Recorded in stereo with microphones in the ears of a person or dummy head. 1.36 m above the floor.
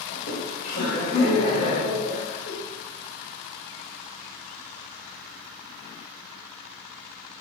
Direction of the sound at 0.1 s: 60° left (ahead or behind).